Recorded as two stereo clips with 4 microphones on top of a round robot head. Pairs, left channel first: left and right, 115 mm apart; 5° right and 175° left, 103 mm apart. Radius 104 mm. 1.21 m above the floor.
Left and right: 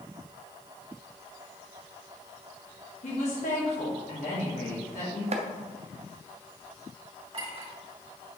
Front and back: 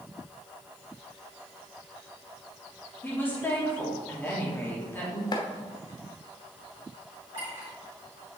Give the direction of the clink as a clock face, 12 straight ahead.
4 o'clock.